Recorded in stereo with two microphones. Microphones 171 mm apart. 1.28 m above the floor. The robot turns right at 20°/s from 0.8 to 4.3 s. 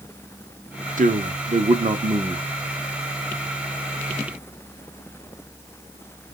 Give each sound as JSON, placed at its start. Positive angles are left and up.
{"t": 1.0, "sound": "a man speaking", "side_deg": -50, "distance_m": 0.8}